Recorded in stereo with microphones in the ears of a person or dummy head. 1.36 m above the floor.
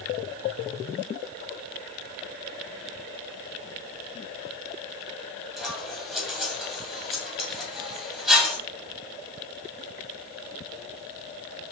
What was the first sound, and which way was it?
Scissors, 5° left (ahead or behind).